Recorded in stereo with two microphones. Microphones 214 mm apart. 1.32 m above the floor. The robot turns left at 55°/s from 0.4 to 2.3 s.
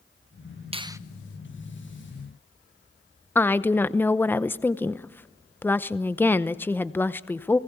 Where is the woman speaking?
10° left (ahead or behind), 0.7 m.